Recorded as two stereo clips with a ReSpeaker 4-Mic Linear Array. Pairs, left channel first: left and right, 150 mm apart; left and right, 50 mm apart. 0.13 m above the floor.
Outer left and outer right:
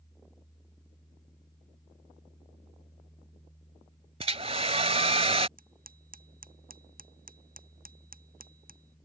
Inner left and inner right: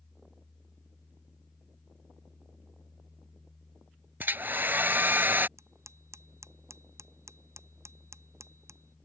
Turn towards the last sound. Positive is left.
turn(degrees=-75)  # may be behind; listen again after turning